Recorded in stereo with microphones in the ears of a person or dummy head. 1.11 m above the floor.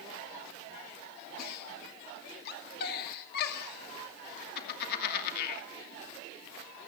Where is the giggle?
55° left (ahead or behind), 2.5 m.